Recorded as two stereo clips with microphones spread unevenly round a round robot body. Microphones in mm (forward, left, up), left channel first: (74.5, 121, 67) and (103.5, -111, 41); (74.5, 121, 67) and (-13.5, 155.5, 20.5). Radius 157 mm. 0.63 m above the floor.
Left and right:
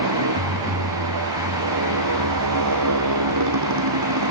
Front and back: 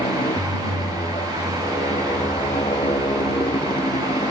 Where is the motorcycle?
90° right.